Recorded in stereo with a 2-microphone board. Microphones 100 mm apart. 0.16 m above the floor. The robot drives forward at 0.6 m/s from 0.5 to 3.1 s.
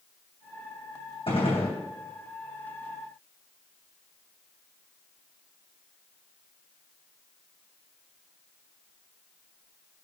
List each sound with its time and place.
1.3 s a gunshot: 60° left (ahead or behind), 2.5 m; by 1.8 s 70° left (ahead or behind), 2.5 m